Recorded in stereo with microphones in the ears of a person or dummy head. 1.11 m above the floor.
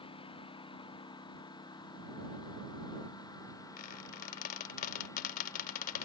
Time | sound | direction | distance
0.0 | a lawn mower | 30° left (ahead or behind) | ?
3.8 | a squeak | 50° left (ahead or behind) | ?